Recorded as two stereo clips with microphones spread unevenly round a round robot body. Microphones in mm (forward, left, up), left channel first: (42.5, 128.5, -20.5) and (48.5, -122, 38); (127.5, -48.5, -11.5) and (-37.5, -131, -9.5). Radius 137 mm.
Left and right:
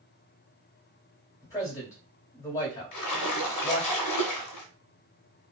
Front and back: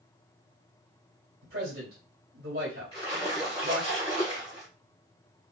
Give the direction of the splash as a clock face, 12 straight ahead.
9 o'clock.